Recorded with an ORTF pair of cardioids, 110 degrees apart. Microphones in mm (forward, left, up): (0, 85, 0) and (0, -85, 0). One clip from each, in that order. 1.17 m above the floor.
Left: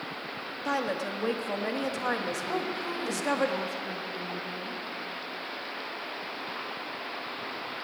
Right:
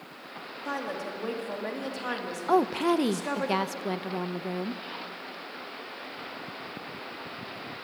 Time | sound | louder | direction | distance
0.7 | a woman speaking | left 4 dB | 20° left | 1.5 m
2.5 | a woman speaking | right 8 dB | 60° right | 0.6 m